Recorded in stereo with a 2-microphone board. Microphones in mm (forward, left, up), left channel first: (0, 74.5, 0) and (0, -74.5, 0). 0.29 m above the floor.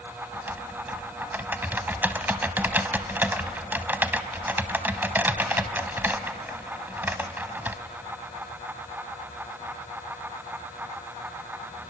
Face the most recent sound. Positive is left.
turn(degrees=-15)  # may be behind; listen again after turning